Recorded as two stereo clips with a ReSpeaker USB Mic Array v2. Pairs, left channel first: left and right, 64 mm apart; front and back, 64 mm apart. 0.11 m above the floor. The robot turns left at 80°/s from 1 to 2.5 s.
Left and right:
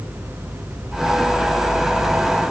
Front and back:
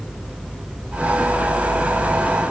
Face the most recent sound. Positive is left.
No sound to turn to.